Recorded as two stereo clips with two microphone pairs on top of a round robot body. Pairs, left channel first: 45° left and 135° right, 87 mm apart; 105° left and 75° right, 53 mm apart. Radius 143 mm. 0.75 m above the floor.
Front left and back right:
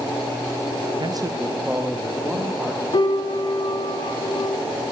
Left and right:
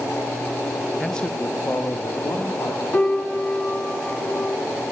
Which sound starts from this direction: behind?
A man speaking, at 1.0 s.